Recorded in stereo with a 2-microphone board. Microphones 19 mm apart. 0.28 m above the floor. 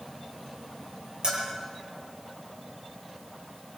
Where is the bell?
55° right (ahead or behind), 6.5 m.